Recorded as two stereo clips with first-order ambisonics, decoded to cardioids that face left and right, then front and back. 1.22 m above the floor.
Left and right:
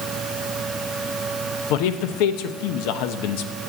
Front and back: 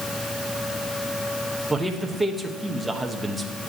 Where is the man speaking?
90° left, 1.0 m.